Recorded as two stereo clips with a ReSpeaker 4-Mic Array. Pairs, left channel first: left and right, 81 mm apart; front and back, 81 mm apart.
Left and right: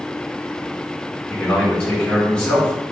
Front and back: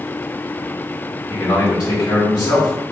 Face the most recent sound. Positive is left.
turn(degrees=15)